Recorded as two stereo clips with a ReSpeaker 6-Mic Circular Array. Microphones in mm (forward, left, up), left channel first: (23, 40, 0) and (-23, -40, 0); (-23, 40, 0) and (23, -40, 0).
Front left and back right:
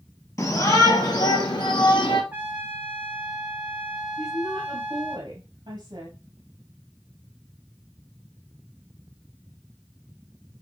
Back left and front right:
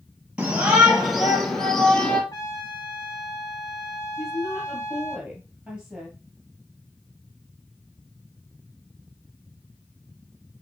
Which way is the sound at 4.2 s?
140° right.